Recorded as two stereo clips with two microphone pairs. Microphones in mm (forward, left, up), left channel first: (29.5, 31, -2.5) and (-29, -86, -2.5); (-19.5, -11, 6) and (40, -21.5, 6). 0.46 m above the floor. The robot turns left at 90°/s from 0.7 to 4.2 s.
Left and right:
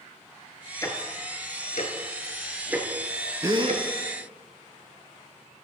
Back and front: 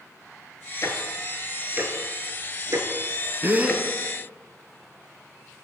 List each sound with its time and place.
0.8 s ticking: 130° left, 1.0 m; by 3.8 s 140° right, 1.0 m
3.4 s a gasp: 55° right, 0.6 m; by 3.8 s 90° right, 0.6 m